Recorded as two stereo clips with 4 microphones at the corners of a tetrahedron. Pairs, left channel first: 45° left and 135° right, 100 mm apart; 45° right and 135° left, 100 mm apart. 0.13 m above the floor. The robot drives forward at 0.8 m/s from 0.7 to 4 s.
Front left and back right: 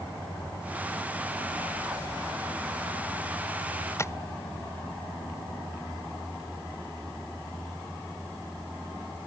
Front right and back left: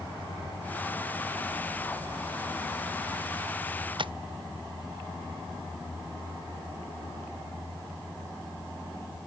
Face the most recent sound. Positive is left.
turn(degrees=105)